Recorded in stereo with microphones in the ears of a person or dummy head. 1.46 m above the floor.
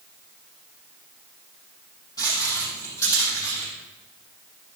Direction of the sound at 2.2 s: 20° left (ahead or behind).